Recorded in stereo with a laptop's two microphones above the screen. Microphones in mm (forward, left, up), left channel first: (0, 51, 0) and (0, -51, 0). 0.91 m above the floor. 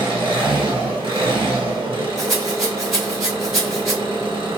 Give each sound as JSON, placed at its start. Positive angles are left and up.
{"t": 0.0, "sound": "an engine running", "side_deg": -60, "distance_m": 1.5}
{"t": 2.2, "sound": "a rattle", "side_deg": 0, "distance_m": 1.3}